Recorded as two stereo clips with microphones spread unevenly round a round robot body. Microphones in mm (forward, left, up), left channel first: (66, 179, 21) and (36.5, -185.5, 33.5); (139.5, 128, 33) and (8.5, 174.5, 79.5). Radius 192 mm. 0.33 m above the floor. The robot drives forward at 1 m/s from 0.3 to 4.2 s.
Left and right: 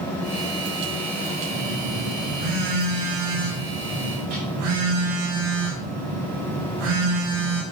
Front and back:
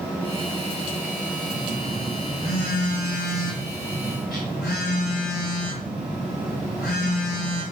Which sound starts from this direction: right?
A phone buzzing, at 1.5 s.